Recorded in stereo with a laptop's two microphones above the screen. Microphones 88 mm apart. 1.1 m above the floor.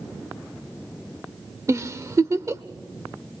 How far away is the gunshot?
I don't hear a gunshot.